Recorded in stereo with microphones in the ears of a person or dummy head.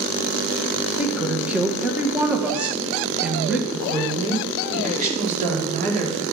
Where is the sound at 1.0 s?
10° right (ahead or behind), 1.8 m.